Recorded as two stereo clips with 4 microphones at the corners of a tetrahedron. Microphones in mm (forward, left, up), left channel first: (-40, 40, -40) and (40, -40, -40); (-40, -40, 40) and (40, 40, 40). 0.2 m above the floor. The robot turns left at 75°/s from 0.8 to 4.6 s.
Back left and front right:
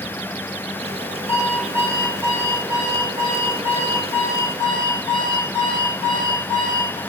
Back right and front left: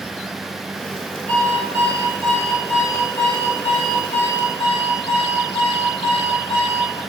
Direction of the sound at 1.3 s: 150° left.